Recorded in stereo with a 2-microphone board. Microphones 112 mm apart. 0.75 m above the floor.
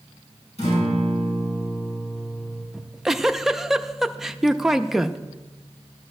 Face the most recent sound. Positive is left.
turn(degrees=0)  # may be behind; listen again after turning